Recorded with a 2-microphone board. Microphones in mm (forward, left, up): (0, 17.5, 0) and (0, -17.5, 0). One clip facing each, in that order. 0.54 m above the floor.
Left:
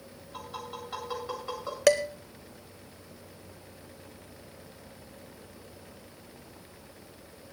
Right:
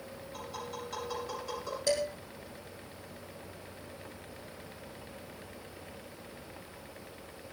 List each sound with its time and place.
0.3 s tapping: 25° left (ahead or behind), 9.5 m
1.9 s dishes clattering: 75° left (ahead or behind), 1.6 m